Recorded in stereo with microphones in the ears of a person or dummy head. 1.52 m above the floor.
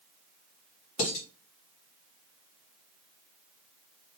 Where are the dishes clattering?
50° left (ahead or behind), 1.4 m.